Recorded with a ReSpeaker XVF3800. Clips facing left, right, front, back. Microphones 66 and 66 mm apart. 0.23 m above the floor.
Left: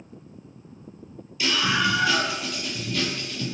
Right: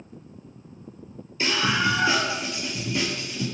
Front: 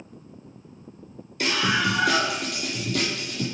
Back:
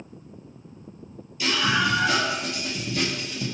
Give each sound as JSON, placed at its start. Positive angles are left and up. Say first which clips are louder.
{"t": 1.4, "sound": "a scream", "louder": "even, even", "azimuth_deg": -30, "distance_m": 6.0}